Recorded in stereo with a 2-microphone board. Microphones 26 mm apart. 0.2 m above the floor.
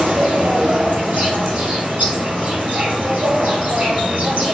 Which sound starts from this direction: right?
An insect, at 0.0 s.